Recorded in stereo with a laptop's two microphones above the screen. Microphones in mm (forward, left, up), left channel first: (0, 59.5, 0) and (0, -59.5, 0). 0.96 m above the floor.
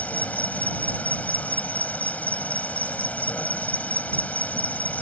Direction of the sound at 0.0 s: 10° left (ahead or behind).